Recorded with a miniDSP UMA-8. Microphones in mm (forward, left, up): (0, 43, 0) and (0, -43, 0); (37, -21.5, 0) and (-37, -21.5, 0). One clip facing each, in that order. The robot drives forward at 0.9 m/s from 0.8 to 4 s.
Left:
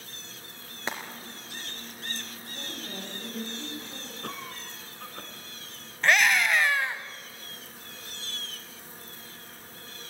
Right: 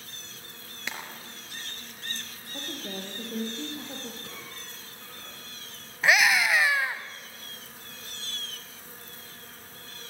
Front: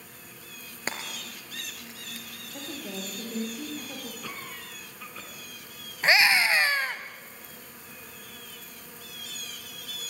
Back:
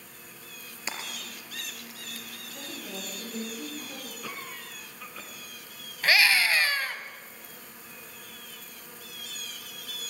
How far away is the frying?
About 2.5 m.